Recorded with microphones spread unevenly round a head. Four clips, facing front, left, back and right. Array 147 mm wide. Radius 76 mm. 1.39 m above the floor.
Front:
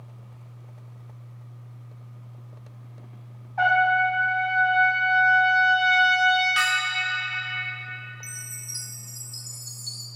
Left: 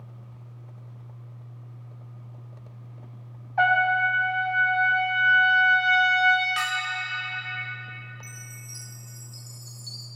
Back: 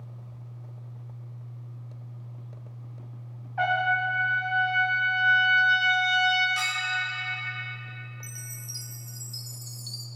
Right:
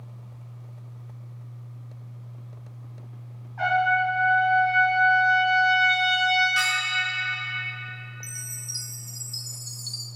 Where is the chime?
135° right, 0.5 m.